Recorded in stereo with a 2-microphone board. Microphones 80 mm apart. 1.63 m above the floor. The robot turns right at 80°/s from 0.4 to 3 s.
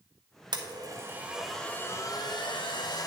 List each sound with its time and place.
0.5 s a blender: 75° right, 1.1 m; by 3.1 s 120° left, 1.1 m